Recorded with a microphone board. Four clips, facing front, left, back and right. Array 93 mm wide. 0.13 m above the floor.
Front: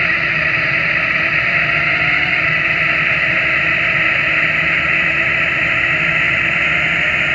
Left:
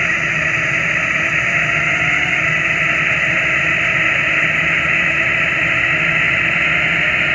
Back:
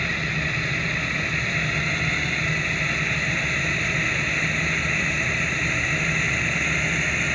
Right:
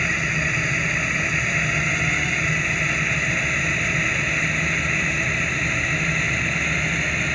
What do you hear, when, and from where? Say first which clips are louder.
0.0 s a drone: left 6 dB, front 10 dB; 35° left; by 7.4 s 45° left